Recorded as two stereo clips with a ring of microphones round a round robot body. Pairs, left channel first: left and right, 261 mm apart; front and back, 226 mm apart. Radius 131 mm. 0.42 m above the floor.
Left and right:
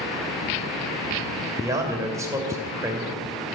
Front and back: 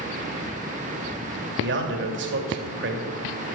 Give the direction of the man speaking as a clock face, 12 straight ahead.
6 o'clock.